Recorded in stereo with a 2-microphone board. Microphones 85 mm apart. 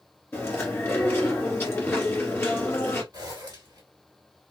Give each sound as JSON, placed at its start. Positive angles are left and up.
{"t": 0.3, "sound": "chewing", "side_deg": 25, "distance_m": 1.9}
{"t": 3.1, "sound": "a zipper", "side_deg": -50, "distance_m": 1.7}